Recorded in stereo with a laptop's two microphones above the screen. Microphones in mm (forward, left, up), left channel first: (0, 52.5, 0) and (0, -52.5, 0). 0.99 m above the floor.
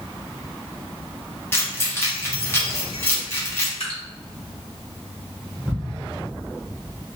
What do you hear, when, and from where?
1.5 s keys jangling: 25° left (ahead or behind), 0.8 m
3.8 s dripping: 70° left (ahead or behind), 1.8 m
5.7 s ticking: centre (ahead or behind), 1.4 m